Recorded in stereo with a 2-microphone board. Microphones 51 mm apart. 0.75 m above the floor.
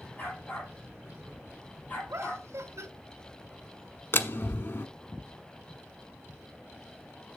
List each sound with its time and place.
0.2 s a dog barking: 30° left (ahead or behind), 5.5 m
2.1 s laughter: 70° right (ahead or behind), 1.1 m
4.1 s a door slam: 55° left (ahead or behind), 1.0 m